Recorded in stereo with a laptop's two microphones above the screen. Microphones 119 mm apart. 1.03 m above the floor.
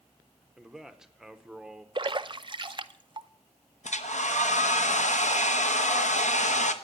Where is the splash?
40° right (ahead or behind), 0.5 m.